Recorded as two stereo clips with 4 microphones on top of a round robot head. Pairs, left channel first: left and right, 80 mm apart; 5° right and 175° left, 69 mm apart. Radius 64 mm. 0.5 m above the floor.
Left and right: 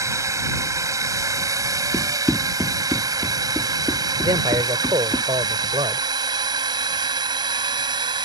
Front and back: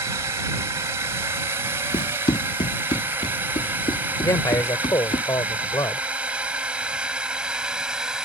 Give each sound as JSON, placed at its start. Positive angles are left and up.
{"t": 0.0, "sound": "a drone", "azimuth_deg": -135}
{"t": 1.9, "sound": "running footsteps", "azimuth_deg": 5}
{"t": 4.2, "sound": "a man speaking", "azimuth_deg": -55}